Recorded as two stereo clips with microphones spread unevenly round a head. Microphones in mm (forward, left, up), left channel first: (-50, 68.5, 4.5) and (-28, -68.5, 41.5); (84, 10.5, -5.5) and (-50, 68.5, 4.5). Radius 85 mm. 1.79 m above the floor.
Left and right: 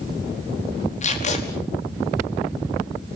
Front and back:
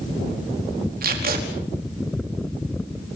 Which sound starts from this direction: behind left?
Tape being pulled, at 1.0 s.